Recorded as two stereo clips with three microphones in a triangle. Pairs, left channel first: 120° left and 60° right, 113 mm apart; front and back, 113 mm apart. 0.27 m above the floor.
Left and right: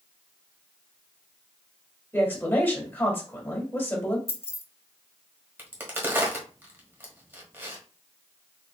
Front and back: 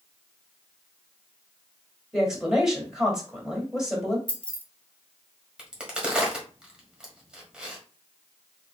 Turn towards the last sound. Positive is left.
turn(degrees=-105)